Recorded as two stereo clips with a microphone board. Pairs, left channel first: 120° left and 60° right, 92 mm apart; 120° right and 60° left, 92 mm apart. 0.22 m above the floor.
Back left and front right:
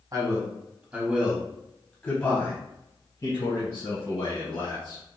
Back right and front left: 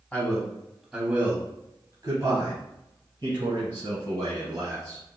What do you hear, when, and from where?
0.1 s a man speaking: 50° right, 1.3 m; by 5.0 s 90° left, 2.5 m